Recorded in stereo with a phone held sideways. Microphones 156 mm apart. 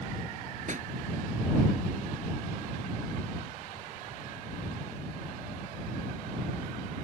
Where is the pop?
55° right (ahead or behind).